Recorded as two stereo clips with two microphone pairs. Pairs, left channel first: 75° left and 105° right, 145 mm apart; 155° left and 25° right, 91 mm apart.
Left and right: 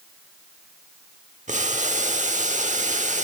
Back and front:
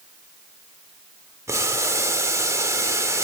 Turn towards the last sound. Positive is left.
turn(degrees=-80)